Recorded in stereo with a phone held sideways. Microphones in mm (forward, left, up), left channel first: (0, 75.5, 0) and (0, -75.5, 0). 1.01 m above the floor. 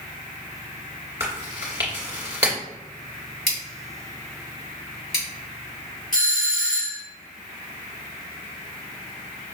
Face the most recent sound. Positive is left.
turn(degrees=60)  # may be behind; listen again after turning